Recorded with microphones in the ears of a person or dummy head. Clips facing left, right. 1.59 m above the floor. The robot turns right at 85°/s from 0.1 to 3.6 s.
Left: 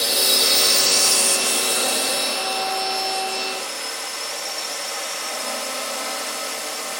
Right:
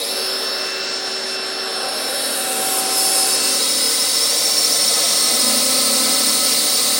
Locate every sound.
0.0 s a drone: 5° left; by 7.0 s 55° right